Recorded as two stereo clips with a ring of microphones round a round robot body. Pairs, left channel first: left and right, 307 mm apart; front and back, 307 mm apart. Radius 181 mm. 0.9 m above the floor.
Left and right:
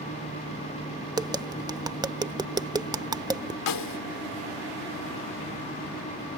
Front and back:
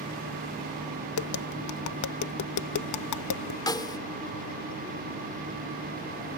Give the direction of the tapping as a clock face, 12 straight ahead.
12 o'clock.